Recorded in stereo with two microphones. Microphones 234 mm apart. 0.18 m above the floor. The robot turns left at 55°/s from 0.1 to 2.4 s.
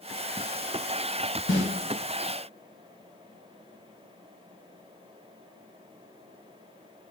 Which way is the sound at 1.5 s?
50° left (ahead or behind).